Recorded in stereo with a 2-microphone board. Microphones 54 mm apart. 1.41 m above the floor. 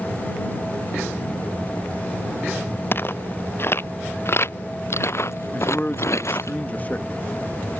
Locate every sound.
2.9 s footsteps: 45° left (ahead or behind); by 6.5 s 60° left (ahead or behind)
5.5 s a man speaking: 30° left (ahead or behind)